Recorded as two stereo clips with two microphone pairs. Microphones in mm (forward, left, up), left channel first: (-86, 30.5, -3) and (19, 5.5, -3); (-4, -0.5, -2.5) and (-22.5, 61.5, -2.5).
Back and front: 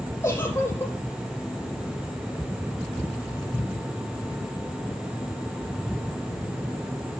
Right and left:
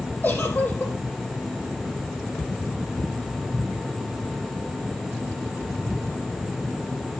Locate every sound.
0.2 s a giggle: 130° right, 5.5 m